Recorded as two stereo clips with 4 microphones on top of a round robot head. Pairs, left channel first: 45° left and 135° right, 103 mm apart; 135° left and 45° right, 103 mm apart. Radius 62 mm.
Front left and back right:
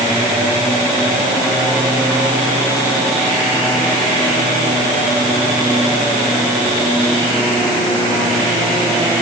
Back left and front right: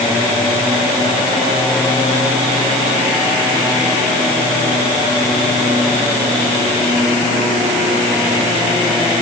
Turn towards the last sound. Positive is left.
No sound to turn to.